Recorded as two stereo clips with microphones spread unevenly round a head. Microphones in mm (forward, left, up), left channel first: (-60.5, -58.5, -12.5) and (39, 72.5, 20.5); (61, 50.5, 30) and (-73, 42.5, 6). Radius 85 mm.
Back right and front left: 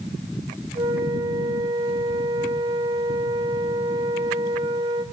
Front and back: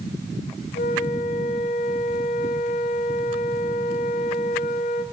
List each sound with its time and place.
0.8 s a flute: 5° right, 3 m